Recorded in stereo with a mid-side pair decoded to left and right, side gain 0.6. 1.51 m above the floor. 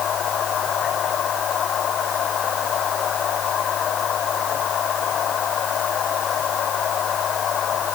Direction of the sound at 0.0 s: 45° left.